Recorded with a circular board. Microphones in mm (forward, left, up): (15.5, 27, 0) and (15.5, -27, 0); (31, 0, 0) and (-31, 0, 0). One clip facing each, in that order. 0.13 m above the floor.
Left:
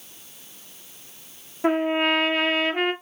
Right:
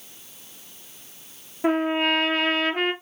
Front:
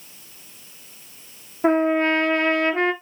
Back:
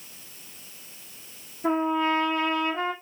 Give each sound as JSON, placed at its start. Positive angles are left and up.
{"t": 1.6, "sound": "a trumpet", "azimuth_deg": 5, "distance_m": 1.1}